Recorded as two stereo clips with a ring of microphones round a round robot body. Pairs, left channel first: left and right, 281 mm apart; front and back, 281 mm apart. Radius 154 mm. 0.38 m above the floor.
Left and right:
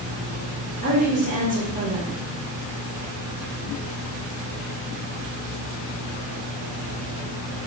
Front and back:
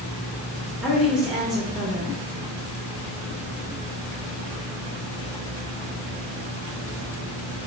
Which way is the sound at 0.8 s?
95° right.